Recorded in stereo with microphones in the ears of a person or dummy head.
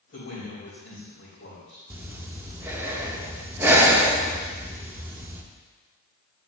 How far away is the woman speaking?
About 2.5 m.